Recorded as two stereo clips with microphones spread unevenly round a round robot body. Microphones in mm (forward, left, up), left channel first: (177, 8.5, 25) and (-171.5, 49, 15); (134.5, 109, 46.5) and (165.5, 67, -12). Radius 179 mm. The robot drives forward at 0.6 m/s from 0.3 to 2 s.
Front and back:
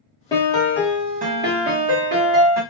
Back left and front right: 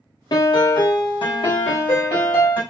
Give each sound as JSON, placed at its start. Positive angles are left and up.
{"t": 0.3, "sound": "a piano", "azimuth_deg": 70, "distance_m": 1.0}